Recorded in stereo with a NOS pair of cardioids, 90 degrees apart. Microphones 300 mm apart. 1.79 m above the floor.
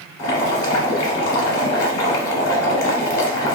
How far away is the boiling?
About 1.1 m.